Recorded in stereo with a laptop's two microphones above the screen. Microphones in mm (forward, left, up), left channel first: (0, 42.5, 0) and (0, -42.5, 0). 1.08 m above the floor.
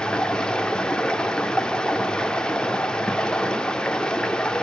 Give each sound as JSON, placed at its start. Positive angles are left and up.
{"t": 0.0, "sound": "running water", "side_deg": 10, "distance_m": 1.7}